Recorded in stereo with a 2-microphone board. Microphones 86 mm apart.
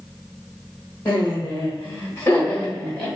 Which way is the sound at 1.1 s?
25° left (ahead or behind).